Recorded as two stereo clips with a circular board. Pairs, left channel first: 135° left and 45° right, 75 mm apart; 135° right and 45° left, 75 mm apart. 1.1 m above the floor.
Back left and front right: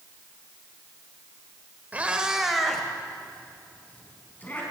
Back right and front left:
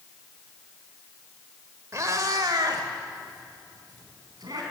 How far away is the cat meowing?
About 1.1 m.